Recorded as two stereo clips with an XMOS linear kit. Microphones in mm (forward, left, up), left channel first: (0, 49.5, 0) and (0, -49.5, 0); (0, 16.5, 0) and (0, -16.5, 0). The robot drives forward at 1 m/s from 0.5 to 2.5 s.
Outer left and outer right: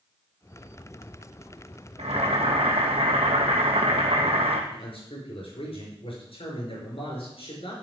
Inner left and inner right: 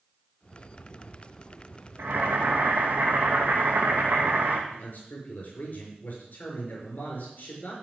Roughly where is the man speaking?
Left.